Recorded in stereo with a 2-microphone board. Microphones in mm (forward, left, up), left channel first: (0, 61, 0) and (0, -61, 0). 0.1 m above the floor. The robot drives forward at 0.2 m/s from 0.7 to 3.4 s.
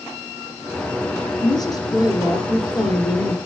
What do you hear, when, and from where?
1.4 s a woman speaking: 35° left (ahead or behind), 2 m